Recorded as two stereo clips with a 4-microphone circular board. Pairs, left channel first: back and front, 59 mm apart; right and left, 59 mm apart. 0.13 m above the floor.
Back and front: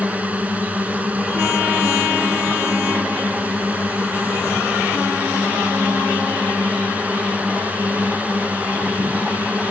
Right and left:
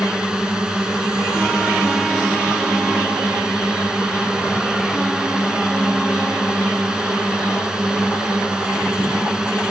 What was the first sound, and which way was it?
A drone, 30° left.